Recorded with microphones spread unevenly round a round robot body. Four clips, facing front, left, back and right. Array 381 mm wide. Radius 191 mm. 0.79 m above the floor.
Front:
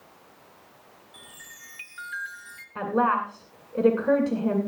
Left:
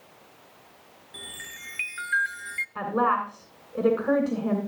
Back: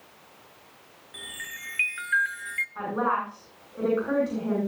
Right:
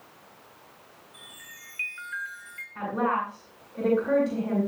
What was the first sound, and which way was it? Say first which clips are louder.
A chime: left 9 dB, back 10 dB; 110° left.